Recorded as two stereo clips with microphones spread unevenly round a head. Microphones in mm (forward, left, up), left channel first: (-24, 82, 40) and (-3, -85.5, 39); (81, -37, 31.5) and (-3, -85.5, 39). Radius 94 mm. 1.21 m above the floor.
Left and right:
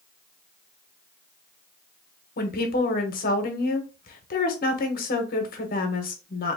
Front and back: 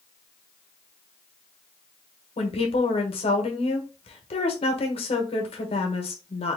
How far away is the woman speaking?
About 1.1 m.